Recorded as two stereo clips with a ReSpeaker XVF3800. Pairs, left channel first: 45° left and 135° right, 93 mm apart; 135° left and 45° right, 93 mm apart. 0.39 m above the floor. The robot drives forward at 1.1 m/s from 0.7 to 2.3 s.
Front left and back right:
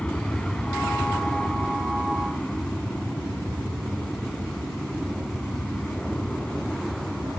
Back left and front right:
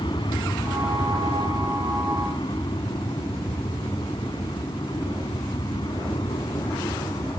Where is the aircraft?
120° left; by 7.4 s 125° left.